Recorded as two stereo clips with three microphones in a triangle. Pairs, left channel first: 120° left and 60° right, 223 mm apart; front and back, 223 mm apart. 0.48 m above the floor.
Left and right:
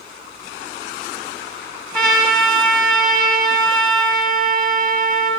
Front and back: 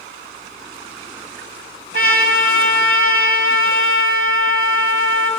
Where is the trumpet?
155° right, 0.9 m.